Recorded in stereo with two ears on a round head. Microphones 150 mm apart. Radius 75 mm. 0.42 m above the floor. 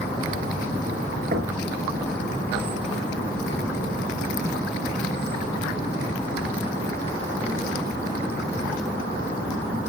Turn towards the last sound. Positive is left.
turn(degrees=-55)  # may be behind; listen again after turning